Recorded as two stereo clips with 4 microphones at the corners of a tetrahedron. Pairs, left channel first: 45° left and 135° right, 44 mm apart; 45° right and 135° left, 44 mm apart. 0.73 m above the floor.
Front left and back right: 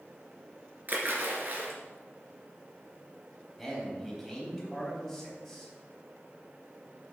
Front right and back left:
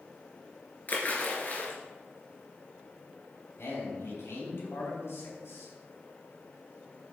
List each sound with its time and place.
0.9 s a splash: 90° right, 2 m
3.6 s a man speaking: 45° right, 4 m